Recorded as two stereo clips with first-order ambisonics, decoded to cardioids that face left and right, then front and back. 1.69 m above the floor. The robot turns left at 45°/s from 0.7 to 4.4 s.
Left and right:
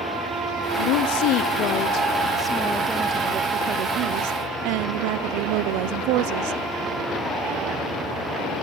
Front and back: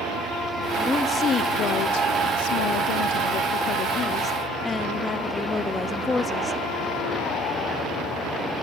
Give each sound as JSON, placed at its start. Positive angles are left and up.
{"t": 0.8, "sound": "a woman speaking", "azimuth_deg": 85, "distance_m": 0.8}